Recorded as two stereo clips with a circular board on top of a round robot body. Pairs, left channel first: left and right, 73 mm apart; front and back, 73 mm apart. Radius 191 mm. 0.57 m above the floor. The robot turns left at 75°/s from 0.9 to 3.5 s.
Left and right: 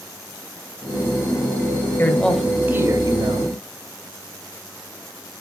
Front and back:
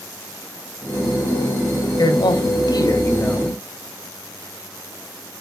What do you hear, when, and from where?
2.0 s a man speaking: 30° left, 2 m; by 3.6 s 85° right, 2 m